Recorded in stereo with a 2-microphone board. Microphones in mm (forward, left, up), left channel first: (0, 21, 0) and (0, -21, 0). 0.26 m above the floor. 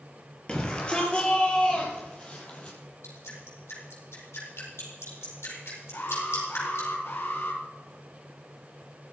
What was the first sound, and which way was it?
A shout, 25° left (ahead or behind).